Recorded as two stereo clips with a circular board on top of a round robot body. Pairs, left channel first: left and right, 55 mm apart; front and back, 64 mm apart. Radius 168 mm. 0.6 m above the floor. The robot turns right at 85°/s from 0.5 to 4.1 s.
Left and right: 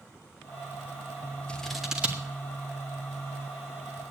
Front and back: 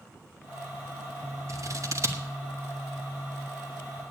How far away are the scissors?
About 1.8 m.